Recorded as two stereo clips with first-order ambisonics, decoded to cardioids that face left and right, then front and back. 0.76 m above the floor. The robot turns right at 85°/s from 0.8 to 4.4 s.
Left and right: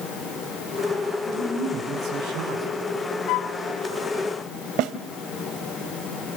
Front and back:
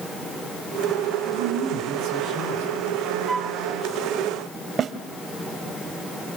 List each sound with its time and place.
1.3 s a woman speaking: 155° left, 7.5 m; by 2.8 s 75° right, 7.5 m
3.3 s a flute: 100° left, 1.1 m; by 3.6 s 130° left, 1.1 m
4.8 s a snare drum: 120° right, 1.3 m